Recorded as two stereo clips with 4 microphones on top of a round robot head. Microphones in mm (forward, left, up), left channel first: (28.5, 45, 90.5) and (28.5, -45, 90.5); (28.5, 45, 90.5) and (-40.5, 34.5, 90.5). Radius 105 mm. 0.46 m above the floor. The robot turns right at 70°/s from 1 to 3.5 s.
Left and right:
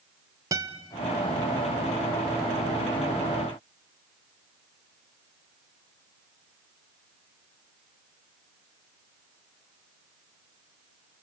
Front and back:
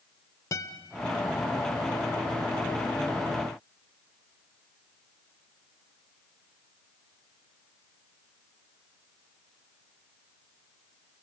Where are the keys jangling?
No keys jangling in this recording.